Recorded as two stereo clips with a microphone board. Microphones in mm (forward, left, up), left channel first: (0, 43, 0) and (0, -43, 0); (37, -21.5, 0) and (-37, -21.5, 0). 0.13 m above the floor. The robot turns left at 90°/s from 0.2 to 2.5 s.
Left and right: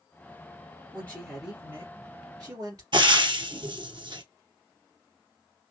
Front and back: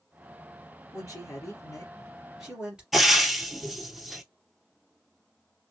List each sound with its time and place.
0.9 s a woman speaking: 40° left, 2.5 m; by 2.8 s 105° right, 2.5 m
2.9 s frying: 95° right, 0.8 m